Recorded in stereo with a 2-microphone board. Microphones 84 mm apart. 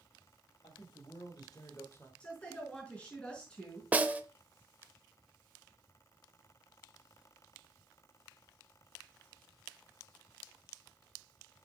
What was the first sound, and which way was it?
A man speaking, 70° left (ahead or behind).